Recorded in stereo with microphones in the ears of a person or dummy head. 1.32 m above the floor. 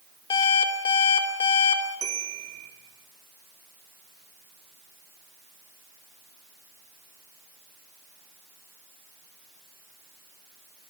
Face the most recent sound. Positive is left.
turn(degrees=-20)  # may be behind; listen again after turning